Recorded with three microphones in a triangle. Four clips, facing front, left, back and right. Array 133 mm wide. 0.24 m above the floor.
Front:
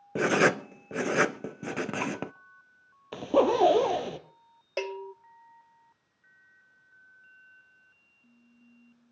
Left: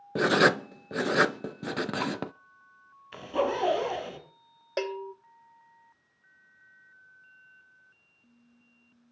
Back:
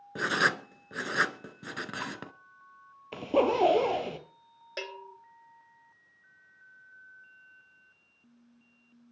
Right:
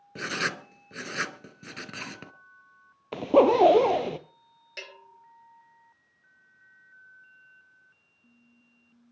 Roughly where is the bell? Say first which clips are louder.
Left 15 dB, front 7 dB; ahead left.